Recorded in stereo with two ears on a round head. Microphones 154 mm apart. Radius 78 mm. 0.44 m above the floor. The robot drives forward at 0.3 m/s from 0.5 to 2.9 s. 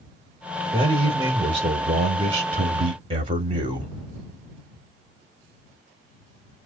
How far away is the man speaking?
About 1.0 m.